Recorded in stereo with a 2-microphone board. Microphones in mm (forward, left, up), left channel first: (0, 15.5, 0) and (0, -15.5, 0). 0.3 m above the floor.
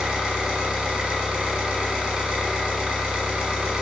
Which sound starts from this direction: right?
An engine running, at 0.0 s.